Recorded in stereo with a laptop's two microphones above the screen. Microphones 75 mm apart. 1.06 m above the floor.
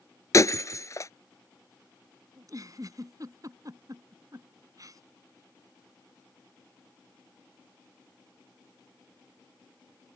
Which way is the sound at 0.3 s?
45° left (ahead or behind).